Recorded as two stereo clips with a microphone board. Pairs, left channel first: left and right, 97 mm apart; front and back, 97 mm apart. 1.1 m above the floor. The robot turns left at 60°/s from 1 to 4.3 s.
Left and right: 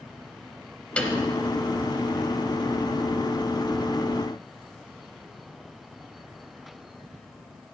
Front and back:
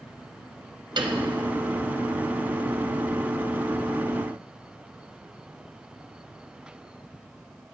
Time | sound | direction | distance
1.0 | a piano | 165° left | 0.8 m